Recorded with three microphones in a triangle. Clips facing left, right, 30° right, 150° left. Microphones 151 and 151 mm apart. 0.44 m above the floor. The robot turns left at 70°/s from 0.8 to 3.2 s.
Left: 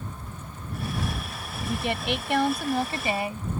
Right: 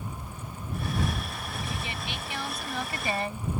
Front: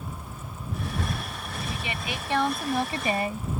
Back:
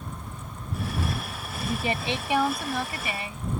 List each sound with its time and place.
1.6 s a woman speaking: 125° left; by 3.5 s 10° left